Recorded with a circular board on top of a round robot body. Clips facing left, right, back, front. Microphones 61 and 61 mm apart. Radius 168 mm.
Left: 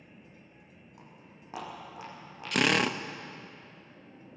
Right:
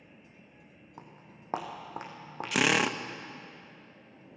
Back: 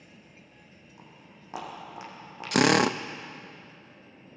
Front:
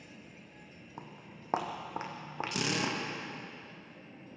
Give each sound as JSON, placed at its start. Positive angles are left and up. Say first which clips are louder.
{"t": 1.0, "sound": "footsteps", "louder": "right 4 dB, front 4 dB", "azimuth_deg": -40, "distance_m": 2.5}
{"t": 2.5, "sound": "a drill", "louder": "even, back 13 dB", "azimuth_deg": -175, "distance_m": 0.7}